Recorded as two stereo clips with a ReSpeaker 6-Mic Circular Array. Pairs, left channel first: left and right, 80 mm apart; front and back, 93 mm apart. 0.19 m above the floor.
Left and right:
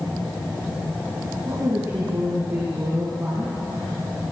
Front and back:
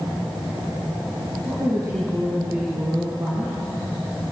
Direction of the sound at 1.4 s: 125° right.